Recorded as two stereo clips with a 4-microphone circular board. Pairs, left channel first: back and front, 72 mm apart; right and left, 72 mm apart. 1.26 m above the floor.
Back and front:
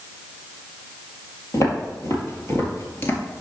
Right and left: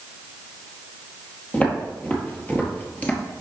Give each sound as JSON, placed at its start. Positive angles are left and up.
{"t": 1.5, "sound": "footsteps", "azimuth_deg": -155, "distance_m": 2.0}